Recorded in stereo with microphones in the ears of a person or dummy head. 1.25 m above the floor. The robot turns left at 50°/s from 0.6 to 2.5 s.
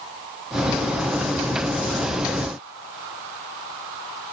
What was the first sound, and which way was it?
Only background noise.